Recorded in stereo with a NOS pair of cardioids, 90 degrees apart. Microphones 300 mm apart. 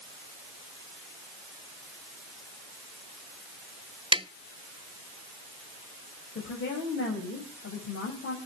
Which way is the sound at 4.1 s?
15° right.